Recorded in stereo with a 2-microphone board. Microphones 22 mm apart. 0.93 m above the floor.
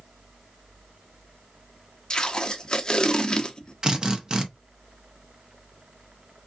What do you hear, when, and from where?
2.1 s tape being pulled: 40° left (ahead or behind), 0.8 m
3.8 s a drill: 35° right (ahead or behind), 0.8 m